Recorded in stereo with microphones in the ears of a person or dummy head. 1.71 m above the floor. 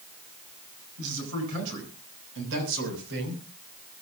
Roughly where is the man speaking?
Right.